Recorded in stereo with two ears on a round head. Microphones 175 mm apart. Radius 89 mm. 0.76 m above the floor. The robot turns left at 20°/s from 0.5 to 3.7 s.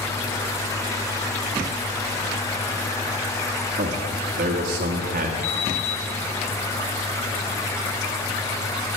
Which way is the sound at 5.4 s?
50° left (ahead or behind).